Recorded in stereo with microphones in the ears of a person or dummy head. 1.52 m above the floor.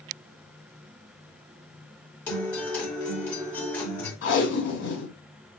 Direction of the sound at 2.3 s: 10° left (ahead or behind).